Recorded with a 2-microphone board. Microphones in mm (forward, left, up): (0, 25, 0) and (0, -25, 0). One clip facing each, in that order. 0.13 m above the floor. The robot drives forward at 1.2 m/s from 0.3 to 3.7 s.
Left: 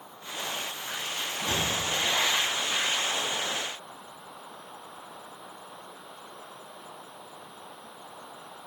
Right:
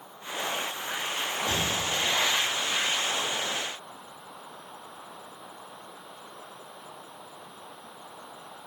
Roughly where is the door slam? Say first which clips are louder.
Left 1 dB; left.